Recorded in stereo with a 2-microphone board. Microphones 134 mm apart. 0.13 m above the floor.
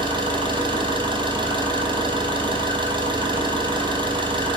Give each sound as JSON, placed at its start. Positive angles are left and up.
{"t": 0.0, "sound": "an engine running", "side_deg": -35, "distance_m": 1.3}